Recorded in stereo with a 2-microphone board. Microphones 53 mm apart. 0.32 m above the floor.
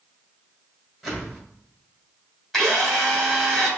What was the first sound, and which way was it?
A whoosh, centre (ahead or behind).